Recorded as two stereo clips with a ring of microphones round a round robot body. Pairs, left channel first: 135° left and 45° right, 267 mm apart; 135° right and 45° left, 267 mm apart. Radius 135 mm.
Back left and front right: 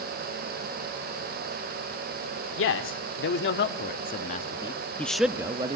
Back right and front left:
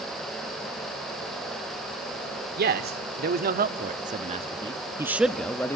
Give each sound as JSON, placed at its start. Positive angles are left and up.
{"t": 2.6, "sound": "a man speaking", "azimuth_deg": 95, "distance_m": 2.0}